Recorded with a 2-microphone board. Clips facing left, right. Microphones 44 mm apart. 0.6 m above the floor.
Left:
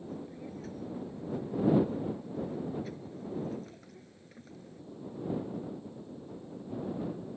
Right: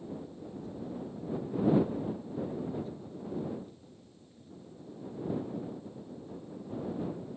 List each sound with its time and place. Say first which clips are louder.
0.1 s a child speaking: left 2 dB; 85° left